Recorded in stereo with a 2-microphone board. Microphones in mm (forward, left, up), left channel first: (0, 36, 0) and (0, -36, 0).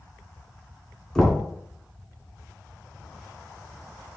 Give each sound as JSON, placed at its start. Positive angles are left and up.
{"t": 1.1, "sound": "knocking", "side_deg": 10, "distance_m": 1.0}